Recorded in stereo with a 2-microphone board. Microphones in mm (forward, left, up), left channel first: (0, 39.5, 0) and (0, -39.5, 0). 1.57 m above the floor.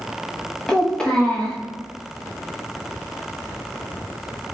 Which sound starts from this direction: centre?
A child speaking, at 0.7 s.